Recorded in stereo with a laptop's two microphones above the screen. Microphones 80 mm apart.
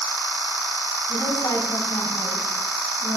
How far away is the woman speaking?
About 9 m.